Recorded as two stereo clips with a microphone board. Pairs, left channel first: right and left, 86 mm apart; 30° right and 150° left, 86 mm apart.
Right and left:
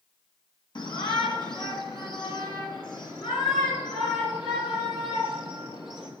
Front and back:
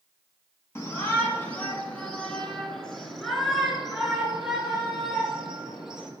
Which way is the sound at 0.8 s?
85° right.